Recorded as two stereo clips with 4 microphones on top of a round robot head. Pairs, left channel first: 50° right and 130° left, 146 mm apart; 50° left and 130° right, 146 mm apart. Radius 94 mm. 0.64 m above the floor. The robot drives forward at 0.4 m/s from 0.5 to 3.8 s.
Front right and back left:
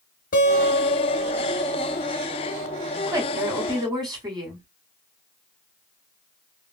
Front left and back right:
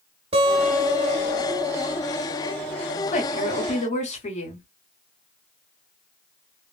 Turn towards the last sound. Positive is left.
turn(degrees=75)